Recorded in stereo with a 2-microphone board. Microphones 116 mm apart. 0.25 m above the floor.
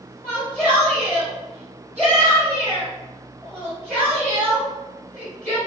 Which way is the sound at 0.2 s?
10° left (ahead or behind).